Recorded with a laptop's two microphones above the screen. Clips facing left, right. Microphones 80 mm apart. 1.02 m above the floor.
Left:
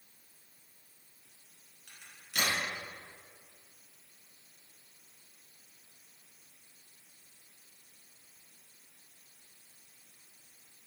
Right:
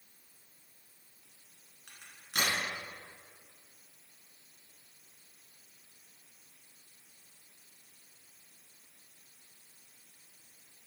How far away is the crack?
About 2 m.